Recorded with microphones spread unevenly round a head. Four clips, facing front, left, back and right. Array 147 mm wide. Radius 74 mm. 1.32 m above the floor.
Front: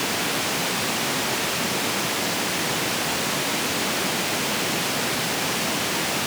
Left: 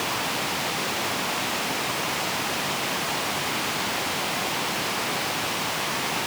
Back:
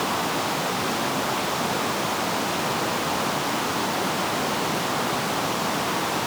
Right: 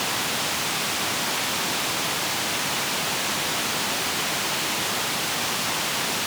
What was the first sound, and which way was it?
Only background noise.